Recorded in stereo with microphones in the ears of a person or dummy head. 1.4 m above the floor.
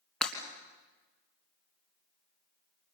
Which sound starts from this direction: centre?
Breaking glass, at 0.2 s.